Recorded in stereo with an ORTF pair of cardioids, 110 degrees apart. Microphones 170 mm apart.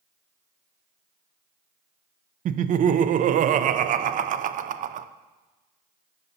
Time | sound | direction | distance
2.5 | laughter | 50° right | 0.5 m